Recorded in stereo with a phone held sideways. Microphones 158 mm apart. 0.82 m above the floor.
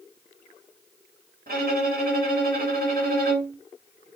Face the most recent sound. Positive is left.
turn(degrees=-70)  # may be behind; listen again after turning